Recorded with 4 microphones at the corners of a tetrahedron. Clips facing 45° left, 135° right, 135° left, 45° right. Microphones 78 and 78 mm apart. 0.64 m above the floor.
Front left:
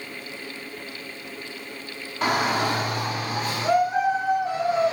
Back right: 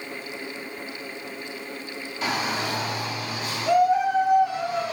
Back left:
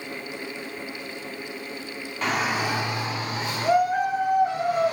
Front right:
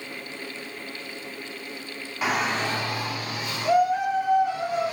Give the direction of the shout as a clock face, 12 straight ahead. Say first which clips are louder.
Front left 5 dB, even; 11 o'clock.